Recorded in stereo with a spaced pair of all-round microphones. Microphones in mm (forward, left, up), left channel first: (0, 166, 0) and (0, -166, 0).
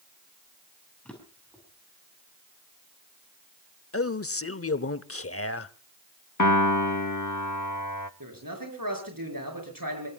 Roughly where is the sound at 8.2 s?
Right.